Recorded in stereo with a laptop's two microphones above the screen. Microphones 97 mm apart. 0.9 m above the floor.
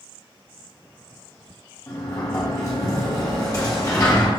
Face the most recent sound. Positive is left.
turn(degrees=35)  # may be behind; listen again after turning